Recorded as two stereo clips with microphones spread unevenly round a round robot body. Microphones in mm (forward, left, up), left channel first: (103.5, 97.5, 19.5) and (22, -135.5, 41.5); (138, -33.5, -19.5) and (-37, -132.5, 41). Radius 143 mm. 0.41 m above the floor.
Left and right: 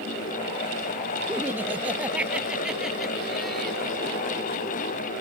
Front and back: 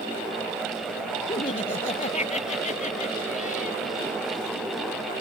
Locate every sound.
1.3 s laughter: 30° right; by 3.8 s 15° right